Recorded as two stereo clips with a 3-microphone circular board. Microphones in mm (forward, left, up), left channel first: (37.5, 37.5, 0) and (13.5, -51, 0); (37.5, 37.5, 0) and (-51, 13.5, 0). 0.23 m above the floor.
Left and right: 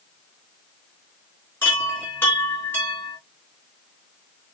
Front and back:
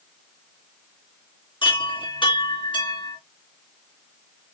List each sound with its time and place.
1.6 s a chime: 15° left, 3 m